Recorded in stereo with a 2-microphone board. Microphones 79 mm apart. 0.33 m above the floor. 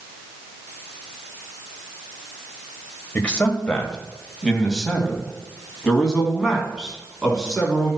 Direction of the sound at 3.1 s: 15° left (ahead or behind).